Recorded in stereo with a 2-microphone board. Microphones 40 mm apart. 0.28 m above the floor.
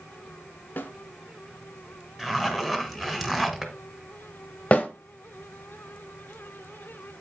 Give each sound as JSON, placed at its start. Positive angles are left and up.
{"t": 0.8, "sound": "a snare drum", "side_deg": 45, "distance_m": 1.3}
{"t": 2.2, "sound": "a zipper", "side_deg": -5, "distance_m": 1.4}
{"t": 4.7, "sound": "a snare drum", "side_deg": 30, "distance_m": 1.1}